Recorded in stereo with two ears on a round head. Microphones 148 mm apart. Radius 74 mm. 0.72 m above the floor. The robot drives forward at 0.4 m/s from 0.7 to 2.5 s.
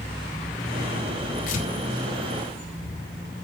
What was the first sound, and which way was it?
Tearing paper, 50° left (ahead or behind).